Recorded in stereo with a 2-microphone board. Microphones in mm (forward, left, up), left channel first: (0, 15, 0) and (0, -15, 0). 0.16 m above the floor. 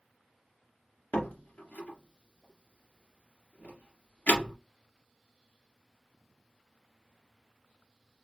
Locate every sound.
1.1 s a door slam: 55° left (ahead or behind), 1.9 m